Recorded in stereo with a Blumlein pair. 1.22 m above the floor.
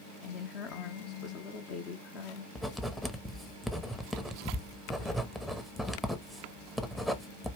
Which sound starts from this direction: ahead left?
A woman speaking, at 0.2 s.